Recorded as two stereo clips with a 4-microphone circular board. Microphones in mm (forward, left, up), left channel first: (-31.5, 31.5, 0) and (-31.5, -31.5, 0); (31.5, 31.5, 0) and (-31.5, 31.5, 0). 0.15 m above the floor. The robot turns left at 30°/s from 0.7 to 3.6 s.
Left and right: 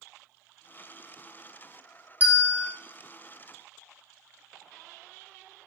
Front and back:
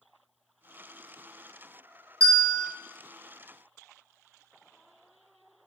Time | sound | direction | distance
2.2 | a bell | 145° right | 0.8 m